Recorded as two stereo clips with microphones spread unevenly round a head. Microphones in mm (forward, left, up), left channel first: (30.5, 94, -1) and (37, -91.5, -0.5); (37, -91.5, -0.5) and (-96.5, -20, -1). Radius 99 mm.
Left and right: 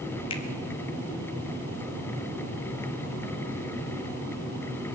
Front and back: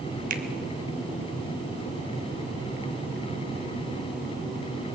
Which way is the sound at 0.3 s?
155° left.